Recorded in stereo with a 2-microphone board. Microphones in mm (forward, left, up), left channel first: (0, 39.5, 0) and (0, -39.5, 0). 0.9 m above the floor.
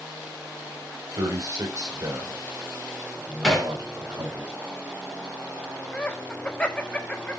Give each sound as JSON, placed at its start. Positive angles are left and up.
{"t": 1.2, "sound": "a man speaking", "side_deg": -45, "distance_m": 3.5}
{"t": 3.4, "sound": "hammering", "side_deg": 0, "distance_m": 3.0}
{"t": 5.9, "sound": "laughter", "side_deg": 15, "distance_m": 1.2}